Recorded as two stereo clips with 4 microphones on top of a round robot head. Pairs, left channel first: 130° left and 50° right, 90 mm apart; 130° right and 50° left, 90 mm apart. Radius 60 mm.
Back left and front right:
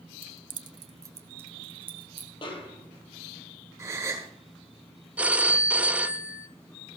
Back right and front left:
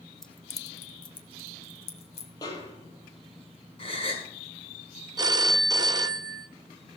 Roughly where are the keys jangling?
Ahead right.